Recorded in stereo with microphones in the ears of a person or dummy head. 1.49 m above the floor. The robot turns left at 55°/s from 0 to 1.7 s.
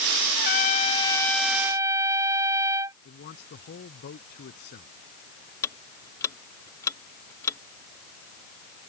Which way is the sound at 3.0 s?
45° left (ahead or behind).